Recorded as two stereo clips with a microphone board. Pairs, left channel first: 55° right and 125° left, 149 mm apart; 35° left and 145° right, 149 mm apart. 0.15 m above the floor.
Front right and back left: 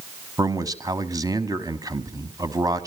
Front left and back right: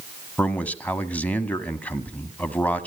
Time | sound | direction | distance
0.4 | a man speaking | 100° left | 1.1 m